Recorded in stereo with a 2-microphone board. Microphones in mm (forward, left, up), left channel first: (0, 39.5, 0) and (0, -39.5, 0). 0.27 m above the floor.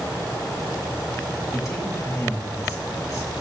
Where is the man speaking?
40° left (ahead or behind), 4 m.